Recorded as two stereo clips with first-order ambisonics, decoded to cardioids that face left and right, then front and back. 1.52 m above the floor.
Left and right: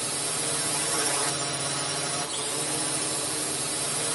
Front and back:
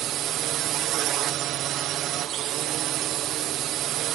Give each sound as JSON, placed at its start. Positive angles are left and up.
{"t": 0.0, "sound": "a drone", "azimuth_deg": -175}